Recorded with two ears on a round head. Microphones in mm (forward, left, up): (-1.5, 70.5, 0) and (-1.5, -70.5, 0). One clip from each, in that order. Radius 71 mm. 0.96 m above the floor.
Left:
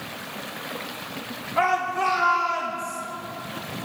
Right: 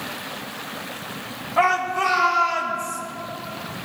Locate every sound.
1.6 s a shout: 10° right (ahead or behind), 3 m; by 3.0 s 15° right (ahead or behind), 4.5 m